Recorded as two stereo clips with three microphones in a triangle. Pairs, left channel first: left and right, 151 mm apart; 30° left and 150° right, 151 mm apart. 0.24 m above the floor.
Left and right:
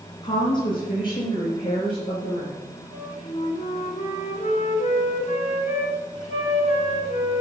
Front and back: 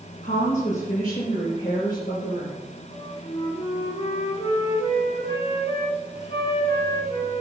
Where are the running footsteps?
No running footsteps in this recording.